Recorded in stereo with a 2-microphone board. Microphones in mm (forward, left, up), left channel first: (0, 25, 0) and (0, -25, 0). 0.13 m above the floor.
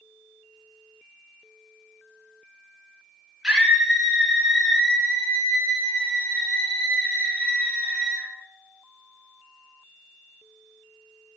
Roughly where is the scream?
Centre.